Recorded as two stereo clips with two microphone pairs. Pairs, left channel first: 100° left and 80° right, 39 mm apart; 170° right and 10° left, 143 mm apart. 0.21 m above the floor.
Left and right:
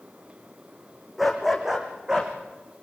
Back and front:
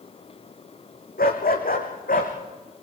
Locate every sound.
1.2 s a dog barking: 165° right, 4.5 m; by 2.3 s 150° right, 5 m